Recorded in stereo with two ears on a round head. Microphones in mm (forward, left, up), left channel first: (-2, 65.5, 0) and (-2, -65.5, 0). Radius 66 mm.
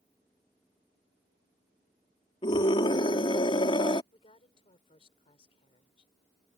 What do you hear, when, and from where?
2.4 s a scream: 35° left (ahead or behind)
4.1 s a woman speaking: 40° left (ahead or behind)